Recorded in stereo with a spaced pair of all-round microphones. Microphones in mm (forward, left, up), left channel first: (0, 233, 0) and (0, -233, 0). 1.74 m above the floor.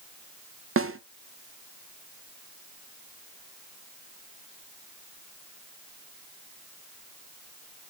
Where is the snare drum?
30° right (ahead or behind), 0.5 m.